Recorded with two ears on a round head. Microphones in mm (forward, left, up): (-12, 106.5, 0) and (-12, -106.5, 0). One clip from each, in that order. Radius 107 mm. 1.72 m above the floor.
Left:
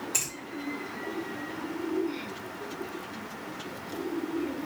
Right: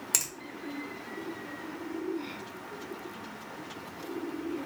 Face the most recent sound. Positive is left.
turn(degrees=-60)  # may be behind; listen again after turning